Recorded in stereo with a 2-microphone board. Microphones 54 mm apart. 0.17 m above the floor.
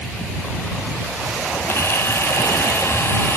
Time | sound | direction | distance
1.7 | a camera shutter | 50° left (ahead or behind) | ?